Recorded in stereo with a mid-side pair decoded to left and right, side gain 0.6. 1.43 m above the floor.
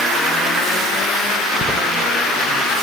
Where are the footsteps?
15° left, 7 m.